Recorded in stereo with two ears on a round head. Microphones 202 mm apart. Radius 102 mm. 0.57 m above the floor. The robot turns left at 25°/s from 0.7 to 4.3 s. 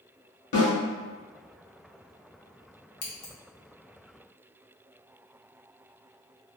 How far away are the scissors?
About 0.7 m.